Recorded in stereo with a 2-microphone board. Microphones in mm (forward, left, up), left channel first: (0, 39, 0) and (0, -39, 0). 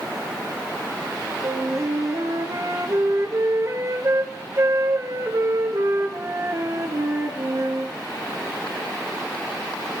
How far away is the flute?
About 1.5 m.